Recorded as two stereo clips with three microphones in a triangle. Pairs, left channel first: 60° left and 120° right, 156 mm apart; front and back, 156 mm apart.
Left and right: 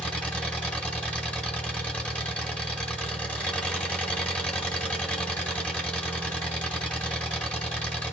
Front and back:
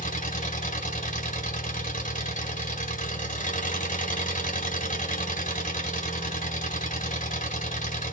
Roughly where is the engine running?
Ahead.